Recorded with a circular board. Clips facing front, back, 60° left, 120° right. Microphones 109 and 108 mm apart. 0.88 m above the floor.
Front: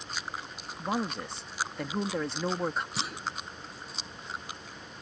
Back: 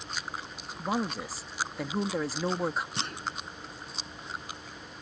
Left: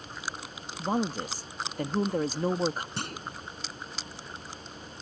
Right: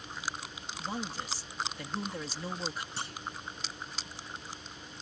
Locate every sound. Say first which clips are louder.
0.8 s a woman speaking: back 1 dB, left 9 dB; 95° left
3.0 s a clunk: even, left 3 dB; 85° left